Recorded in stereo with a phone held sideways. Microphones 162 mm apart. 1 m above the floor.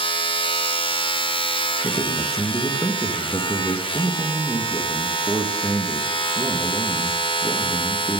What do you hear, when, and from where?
0.0 s a machine running: 35° left (ahead or behind), 0.8 m
1.8 s a man speaking: 20° left (ahead or behind), 0.8 m